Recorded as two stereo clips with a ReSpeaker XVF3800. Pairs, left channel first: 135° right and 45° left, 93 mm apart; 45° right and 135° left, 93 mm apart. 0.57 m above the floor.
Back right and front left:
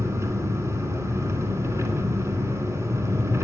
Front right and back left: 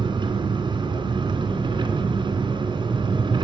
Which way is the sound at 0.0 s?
105° left.